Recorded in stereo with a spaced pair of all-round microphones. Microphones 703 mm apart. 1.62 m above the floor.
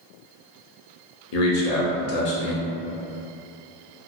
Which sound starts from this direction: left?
A man speaking, at 1.3 s.